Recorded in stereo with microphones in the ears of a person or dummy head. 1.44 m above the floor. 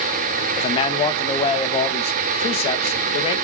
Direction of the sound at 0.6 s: 30° left (ahead or behind).